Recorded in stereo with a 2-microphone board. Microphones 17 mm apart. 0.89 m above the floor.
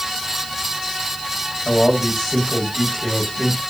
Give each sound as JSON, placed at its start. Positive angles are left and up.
{"t": 1.6, "sound": "a man speaking", "side_deg": 10, "distance_m": 3.5}